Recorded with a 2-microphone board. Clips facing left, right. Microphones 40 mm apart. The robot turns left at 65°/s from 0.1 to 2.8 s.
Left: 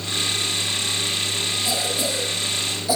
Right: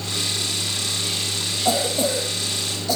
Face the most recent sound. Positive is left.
turn(degrees=170)